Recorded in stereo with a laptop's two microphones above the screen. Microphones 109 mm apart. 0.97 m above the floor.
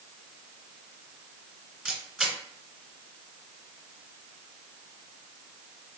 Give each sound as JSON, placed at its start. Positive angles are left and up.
{"t": 1.9, "sound": "a camera shutter", "side_deg": 0, "distance_m": 1.5}